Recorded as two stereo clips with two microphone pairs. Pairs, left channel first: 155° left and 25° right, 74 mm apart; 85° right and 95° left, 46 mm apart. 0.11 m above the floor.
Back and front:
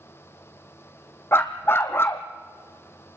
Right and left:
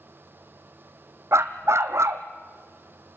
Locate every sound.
1.3 s a dog barking: 100° left, 1.4 m